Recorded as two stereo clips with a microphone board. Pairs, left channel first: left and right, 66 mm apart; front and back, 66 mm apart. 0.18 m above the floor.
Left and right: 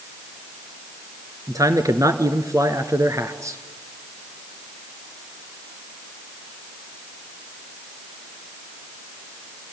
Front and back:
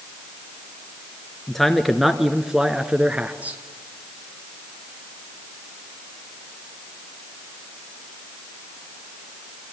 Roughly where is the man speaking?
Right.